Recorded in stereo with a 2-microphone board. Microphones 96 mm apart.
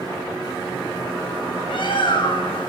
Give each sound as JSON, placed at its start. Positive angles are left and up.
{"t": 1.7, "sound": "a bird", "side_deg": 55, "distance_m": 2.5}